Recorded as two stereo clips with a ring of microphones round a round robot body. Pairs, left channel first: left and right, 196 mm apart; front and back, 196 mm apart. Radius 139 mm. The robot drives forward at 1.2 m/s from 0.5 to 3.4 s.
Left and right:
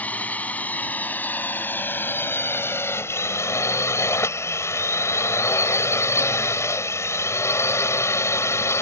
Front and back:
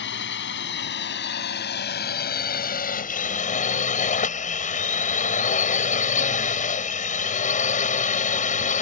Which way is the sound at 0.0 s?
10° left.